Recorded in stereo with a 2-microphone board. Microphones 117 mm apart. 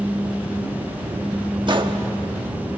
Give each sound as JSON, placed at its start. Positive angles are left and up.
{"t": 1.7, "sound": "a gunshot", "side_deg": -40, "distance_m": 1.2}